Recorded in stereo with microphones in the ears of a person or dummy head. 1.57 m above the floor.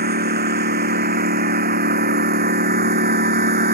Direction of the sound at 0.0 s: 45° right (ahead or behind).